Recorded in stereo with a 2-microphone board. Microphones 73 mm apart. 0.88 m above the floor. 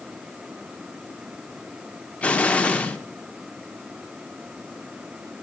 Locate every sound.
2.2 s an explosion: 20° left (ahead or behind), 0.8 m